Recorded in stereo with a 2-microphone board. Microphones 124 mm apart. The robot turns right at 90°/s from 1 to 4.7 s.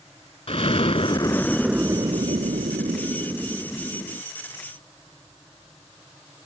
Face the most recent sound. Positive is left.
turn(degrees=100)